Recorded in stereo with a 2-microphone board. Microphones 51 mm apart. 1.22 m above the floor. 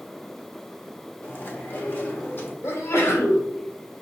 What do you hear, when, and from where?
1.2 s chewing: 45° left (ahead or behind), 1.0 m
2.6 s a sneeze: 70° left (ahead or behind), 2 m